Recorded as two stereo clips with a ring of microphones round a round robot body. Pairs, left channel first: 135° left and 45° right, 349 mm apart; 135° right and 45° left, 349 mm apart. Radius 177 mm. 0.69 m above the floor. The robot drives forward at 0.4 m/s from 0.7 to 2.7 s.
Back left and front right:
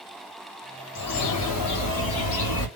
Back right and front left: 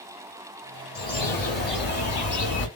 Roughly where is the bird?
Behind.